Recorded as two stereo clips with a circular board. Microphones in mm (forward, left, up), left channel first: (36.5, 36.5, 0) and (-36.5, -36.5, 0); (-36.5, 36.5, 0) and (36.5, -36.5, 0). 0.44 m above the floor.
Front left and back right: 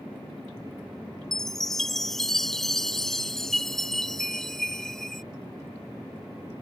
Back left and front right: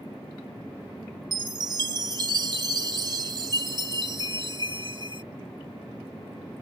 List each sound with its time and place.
1.3 s a chime: 40° right